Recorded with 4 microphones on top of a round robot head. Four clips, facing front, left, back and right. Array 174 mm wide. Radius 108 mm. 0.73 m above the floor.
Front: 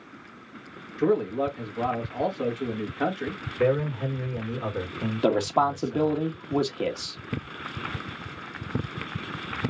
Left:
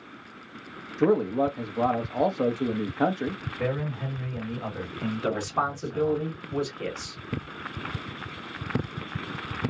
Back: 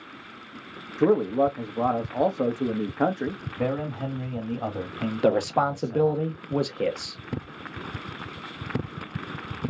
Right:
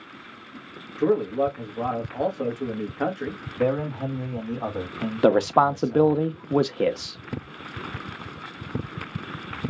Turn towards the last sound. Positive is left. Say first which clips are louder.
# right 11 dB, even
turn(degrees=-95)